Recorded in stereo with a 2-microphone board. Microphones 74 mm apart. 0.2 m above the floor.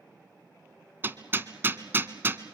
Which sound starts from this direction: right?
Hammering, at 1.0 s.